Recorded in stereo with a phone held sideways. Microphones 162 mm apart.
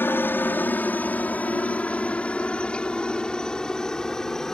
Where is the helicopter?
10° left (ahead or behind); by 4.5 s 5° left (ahead or behind).